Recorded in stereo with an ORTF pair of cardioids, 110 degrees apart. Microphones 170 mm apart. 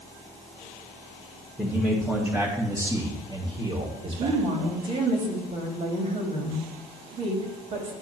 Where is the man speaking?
5° left, 1.9 m; by 4.4 s 40° right, 2.5 m.